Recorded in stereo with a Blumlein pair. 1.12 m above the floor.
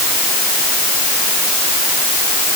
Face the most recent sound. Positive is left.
No sound to turn to.